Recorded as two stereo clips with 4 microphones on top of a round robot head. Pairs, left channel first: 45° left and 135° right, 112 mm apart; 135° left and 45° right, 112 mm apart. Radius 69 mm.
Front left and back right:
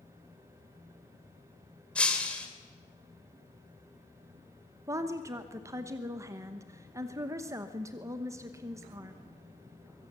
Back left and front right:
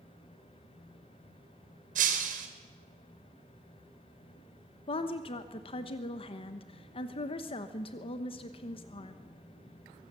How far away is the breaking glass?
About 2.5 m.